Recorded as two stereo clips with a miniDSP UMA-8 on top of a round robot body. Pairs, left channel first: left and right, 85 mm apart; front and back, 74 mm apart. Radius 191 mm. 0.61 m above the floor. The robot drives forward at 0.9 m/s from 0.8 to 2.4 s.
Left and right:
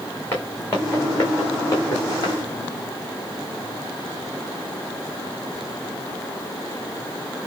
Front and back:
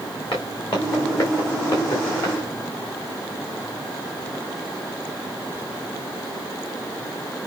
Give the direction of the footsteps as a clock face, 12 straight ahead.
11 o'clock.